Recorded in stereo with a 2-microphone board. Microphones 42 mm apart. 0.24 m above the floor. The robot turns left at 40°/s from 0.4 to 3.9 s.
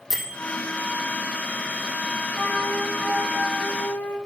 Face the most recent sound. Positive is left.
turn(degrees=95)